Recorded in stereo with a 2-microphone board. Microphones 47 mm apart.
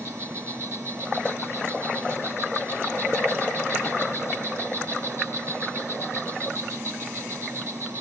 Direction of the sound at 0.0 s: 65° right (ahead or behind).